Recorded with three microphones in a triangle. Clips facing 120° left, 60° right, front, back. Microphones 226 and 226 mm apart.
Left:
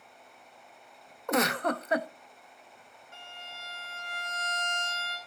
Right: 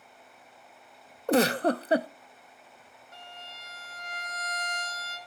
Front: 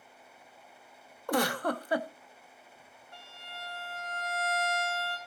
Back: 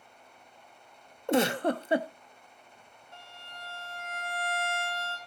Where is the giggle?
120° right, 0.6 m.